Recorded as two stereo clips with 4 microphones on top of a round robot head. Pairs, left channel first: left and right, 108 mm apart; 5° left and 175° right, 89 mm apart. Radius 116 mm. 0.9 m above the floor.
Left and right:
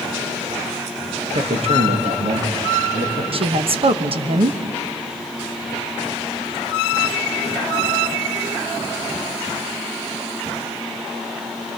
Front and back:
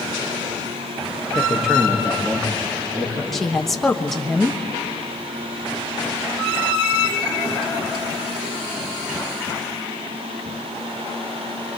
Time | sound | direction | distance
1.4 | a man speaking | 90° right | 1.6 m
3.3 | a woman speaking | 80° right | 1.2 m